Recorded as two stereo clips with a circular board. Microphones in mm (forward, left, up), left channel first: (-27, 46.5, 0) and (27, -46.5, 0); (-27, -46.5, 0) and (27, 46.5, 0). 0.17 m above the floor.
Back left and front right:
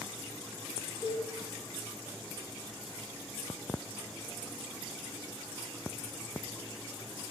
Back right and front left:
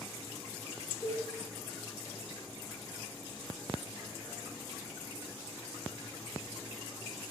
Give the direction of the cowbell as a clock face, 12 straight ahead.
6 o'clock.